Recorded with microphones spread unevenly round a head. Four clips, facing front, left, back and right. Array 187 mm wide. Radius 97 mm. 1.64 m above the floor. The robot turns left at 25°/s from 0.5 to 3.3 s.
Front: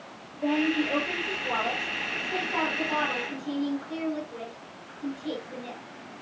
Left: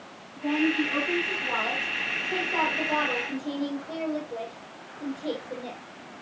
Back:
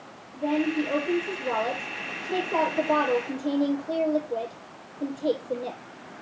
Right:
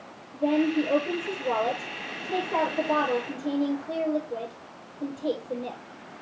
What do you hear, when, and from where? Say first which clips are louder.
0.3 s a woman speaking: right 2 dB, even; 90° right, 6.5 m; by 5.8 s 160° right, 6.5 m